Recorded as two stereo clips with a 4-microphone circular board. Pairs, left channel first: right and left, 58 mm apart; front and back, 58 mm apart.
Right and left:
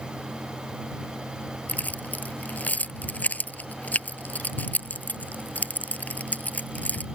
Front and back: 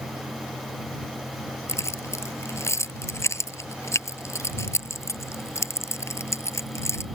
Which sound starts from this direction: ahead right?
Keys jangling, at 1.7 s.